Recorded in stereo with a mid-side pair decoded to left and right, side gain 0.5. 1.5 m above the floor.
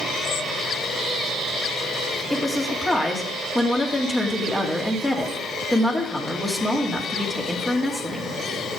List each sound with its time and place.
2.3 s a woman speaking: 20° left, 2.5 m